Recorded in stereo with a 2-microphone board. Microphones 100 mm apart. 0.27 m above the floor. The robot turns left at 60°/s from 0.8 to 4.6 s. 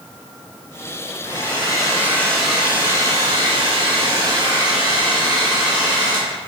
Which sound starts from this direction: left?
A hair dryer, at 1.2 s.